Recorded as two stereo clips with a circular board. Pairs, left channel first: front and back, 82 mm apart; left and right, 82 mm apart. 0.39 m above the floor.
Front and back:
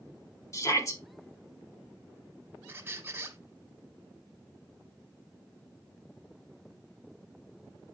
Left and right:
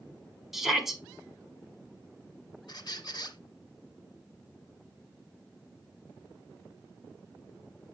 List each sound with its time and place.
0.5 s a shout: 5° right, 1.6 m
2.7 s a squeak: 120° left, 1.0 m